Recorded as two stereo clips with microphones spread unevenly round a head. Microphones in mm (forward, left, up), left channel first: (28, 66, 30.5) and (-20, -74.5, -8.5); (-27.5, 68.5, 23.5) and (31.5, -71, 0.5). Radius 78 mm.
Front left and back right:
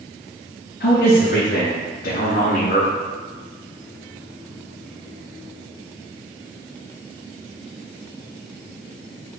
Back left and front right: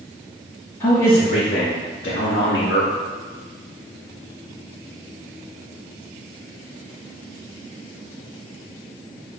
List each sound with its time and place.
0.8 s a man speaking: 50° left, 2.5 m; by 2.9 s 115° left, 1.8 m